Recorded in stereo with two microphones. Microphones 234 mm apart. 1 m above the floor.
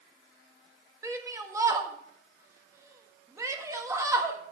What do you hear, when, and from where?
1.0 s a shout: 15° right (ahead or behind), 1.3 m